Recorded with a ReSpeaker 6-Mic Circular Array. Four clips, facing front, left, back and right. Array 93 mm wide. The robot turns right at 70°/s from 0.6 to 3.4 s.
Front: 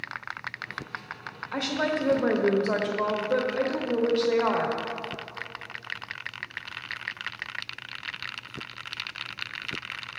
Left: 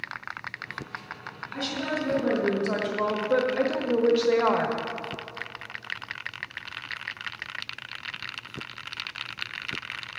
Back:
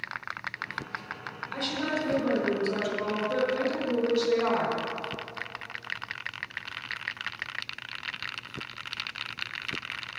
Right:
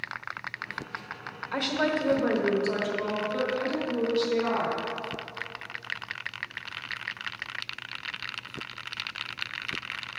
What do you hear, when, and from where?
1.5 s a woman speaking: 65° right, 1.1 m; by 4.8 s 70° left, 1.1 m